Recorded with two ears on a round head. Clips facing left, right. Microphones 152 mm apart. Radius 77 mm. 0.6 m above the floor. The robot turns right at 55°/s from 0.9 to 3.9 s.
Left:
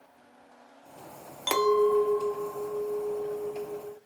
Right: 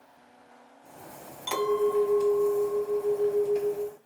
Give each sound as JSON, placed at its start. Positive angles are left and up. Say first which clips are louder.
{"t": 1.5, "sound": "a clink", "louder": "left 2 dB", "azimuth_deg": 100, "distance_m": 0.6}